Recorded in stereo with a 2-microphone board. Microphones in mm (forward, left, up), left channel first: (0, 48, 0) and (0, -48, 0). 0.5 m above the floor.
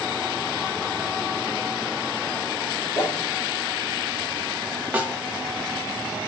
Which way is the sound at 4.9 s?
15° right (ahead or behind).